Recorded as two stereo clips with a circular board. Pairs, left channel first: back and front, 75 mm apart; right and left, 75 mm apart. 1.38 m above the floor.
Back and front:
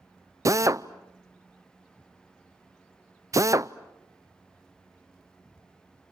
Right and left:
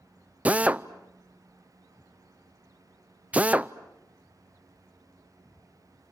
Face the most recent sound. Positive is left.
turn(degrees=25)